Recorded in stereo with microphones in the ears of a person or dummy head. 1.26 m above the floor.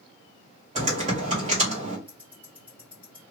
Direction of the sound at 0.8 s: 40° right (ahead or behind).